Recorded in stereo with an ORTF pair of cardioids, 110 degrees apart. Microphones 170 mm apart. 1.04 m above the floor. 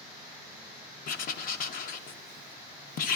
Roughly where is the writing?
Ahead left.